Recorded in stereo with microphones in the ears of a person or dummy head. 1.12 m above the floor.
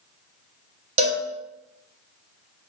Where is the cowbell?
30° right (ahead or behind), 0.7 m.